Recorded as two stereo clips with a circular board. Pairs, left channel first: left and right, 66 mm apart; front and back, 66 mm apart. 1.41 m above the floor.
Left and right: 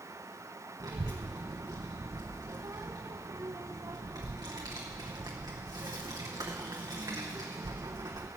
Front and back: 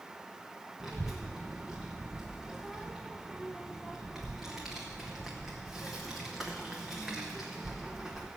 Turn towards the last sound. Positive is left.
turn(degrees=-95)